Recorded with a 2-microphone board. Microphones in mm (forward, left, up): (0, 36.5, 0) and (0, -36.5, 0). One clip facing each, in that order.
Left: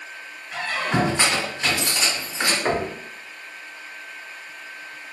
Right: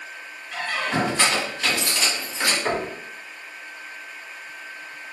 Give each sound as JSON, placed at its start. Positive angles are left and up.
{"t": 0.5, "sound": "a squeak", "side_deg": 15, "distance_m": 1.1}
{"t": 2.6, "sound": "knocking", "side_deg": 15, "distance_m": 0.6}